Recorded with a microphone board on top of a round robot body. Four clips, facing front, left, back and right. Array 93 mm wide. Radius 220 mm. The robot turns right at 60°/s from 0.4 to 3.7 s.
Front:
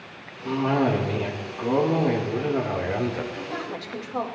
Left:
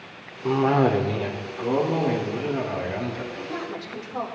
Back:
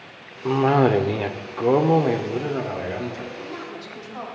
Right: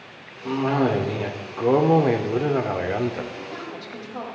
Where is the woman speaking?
20° right, 4.5 m; by 4.2 s 5° left, 4.5 m.